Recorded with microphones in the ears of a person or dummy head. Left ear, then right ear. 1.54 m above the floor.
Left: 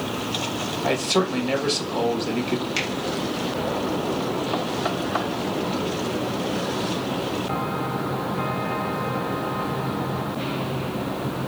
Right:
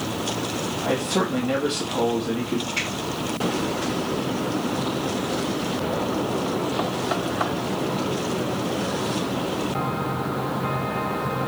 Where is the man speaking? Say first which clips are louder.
Left 2 dB; 45° left (ahead or behind), 1.6 m.